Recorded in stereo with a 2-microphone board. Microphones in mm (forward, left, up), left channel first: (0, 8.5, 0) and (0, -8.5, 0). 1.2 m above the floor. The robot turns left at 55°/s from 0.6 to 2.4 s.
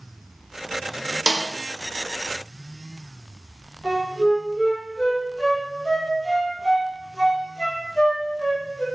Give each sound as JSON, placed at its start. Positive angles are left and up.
{"t": 1.3, "sound": "a snare drum", "side_deg": -55, "distance_m": 0.6}
{"t": 3.8, "sound": "a flute", "side_deg": 45, "distance_m": 1.4}